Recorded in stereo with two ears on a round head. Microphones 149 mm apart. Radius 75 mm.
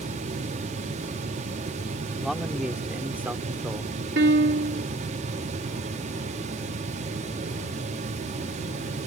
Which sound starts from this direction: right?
A piano, at 4.2 s.